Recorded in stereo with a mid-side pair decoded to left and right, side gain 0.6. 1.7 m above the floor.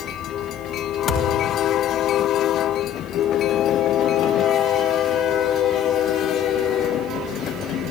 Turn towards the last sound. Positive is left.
turn(degrees=65)